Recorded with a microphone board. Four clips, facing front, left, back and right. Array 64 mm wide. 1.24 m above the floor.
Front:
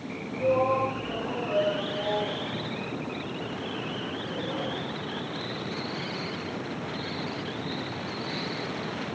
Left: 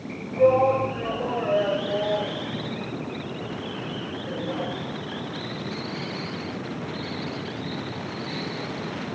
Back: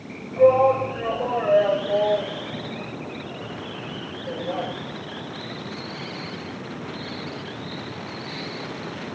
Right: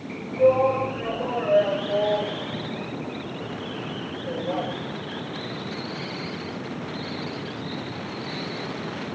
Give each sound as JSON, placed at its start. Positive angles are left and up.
{"t": 0.4, "sound": "a shout", "azimuth_deg": 165, "distance_m": 5.0}